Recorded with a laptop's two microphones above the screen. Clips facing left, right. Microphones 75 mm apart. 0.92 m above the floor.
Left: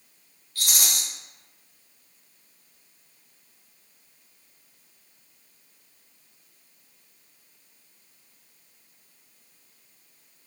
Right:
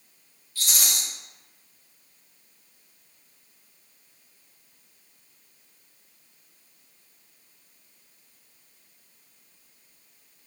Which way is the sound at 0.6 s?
55° left (ahead or behind).